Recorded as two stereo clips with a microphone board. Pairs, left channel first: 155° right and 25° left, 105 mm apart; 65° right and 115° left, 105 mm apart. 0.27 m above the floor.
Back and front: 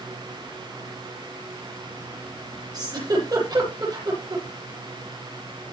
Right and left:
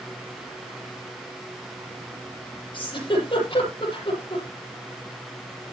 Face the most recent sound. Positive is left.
turn(degrees=-30)